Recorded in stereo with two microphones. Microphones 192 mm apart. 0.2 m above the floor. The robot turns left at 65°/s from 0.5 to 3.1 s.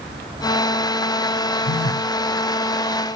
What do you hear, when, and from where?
1.6 s a phone buzzing: 65° left (ahead or behind), 0.5 m; by 2.1 s 85° left, 0.5 m